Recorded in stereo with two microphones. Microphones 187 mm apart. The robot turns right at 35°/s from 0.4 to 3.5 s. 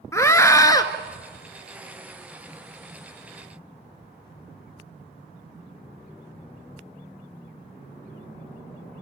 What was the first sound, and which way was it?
A scream, 15° left (ahead or behind).